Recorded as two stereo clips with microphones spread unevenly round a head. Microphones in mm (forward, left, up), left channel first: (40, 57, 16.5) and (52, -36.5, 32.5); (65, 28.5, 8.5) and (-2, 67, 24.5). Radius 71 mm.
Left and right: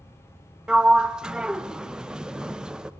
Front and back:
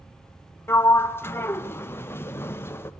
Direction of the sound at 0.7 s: 5° left.